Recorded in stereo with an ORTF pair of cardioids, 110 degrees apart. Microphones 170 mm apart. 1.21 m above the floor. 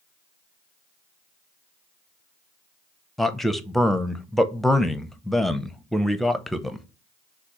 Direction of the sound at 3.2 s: Straight ahead.